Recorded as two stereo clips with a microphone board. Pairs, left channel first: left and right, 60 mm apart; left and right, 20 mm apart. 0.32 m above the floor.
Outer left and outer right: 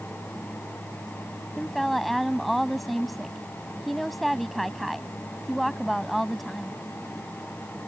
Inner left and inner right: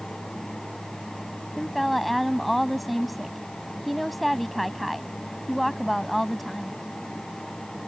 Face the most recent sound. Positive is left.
turn(degrees=0)  # may be behind; listen again after turning